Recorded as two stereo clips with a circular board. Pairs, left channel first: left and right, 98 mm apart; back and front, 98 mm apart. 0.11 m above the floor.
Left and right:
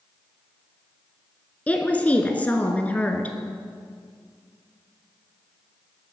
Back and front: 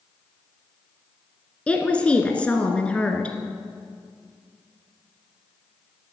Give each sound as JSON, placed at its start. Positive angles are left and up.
{"t": 1.7, "sound": "a woman speaking", "azimuth_deg": 130, "distance_m": 1.1}